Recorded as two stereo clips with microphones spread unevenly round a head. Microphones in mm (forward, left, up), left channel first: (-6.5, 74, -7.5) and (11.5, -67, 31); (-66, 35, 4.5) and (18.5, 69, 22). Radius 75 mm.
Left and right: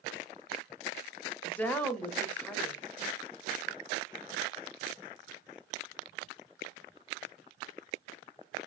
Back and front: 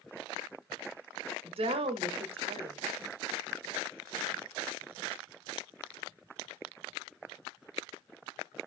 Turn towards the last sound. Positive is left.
turn(degrees=30)